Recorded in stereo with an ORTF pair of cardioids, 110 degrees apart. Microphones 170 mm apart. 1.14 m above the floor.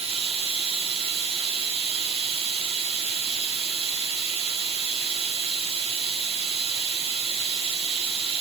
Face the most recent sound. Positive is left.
turn(degrees=-35)